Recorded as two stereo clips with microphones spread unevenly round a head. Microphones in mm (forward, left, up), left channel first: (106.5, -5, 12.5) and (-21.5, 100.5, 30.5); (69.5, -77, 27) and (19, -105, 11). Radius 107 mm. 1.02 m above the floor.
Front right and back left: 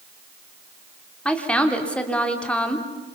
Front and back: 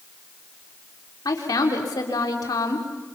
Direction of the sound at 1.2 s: 45° left.